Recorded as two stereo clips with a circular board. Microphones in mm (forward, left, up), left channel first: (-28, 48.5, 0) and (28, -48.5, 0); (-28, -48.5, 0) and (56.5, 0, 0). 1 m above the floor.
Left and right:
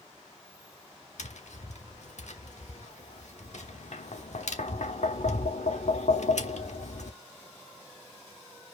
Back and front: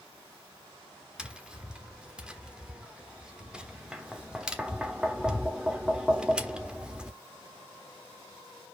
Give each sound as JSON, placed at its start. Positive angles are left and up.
{"t": 1.2, "sound": "tapping", "azimuth_deg": 110, "distance_m": 1.2}